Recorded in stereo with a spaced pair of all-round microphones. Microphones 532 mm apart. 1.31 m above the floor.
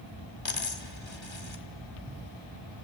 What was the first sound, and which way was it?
A dropped coin, 55° left (ahead or behind).